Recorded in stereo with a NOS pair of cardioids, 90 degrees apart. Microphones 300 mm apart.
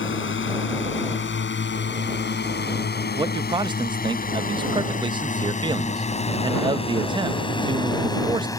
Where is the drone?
40° left; by 8.6 s 10° left.